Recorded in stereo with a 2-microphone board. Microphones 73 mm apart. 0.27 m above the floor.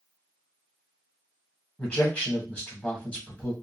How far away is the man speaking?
About 1.3 m.